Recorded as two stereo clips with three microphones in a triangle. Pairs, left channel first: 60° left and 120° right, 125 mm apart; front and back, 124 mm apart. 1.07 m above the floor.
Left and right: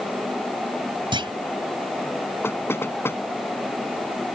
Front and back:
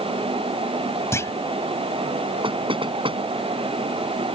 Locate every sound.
1.1 s a clunk: 70° right
2.4 s knocking: 130° left